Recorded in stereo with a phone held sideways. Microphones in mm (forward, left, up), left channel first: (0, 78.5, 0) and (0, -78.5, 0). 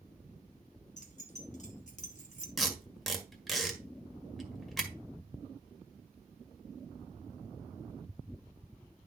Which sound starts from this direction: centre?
Tape being pulled, at 2.6 s.